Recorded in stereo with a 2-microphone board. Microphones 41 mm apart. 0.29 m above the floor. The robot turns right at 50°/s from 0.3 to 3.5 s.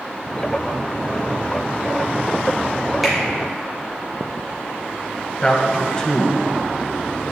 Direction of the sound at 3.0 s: 10° right (ahead or behind).